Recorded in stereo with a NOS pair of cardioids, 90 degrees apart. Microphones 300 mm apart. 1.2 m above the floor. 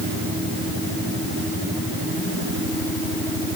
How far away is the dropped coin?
No dropped coin in this recording.